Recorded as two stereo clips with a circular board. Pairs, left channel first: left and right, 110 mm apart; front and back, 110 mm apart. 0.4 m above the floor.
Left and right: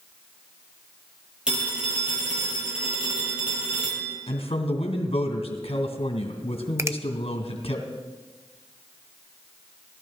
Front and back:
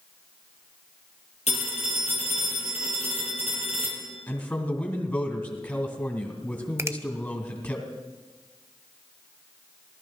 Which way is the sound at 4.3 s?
70° left.